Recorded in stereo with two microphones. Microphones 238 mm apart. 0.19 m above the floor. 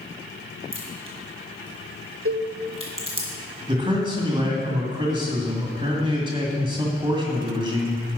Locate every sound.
0.7 s a crack: 25° right (ahead or behind), 2 m
2.2 s a cowbell: 65° right (ahead or behind), 0.7 m
3.7 s a man speaking: 20° right (ahead or behind), 1.7 m